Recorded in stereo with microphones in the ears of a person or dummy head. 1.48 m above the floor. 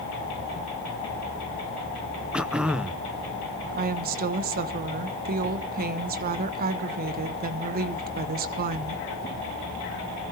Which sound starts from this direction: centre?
Throat clearing, at 2.3 s.